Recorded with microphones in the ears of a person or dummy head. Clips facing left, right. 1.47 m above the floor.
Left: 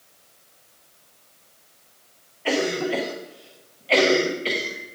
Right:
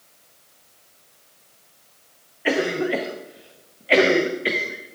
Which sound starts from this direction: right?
A cough, at 2.5 s.